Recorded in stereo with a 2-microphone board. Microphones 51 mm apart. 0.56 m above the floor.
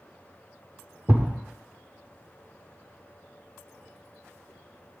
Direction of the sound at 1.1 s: 45° right (ahead or behind).